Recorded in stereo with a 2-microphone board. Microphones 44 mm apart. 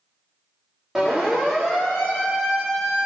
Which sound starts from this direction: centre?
A siren, at 0.9 s.